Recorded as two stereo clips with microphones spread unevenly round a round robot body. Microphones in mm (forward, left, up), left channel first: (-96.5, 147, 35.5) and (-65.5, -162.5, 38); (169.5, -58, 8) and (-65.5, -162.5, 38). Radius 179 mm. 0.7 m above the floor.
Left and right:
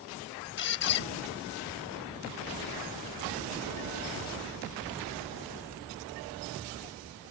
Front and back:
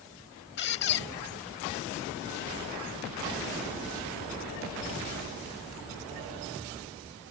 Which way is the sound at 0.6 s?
60° left.